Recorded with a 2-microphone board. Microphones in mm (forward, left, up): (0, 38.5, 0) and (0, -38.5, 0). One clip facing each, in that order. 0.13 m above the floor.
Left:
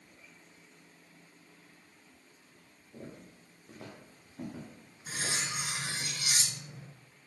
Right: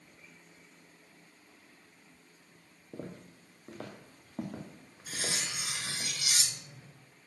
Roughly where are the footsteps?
Right.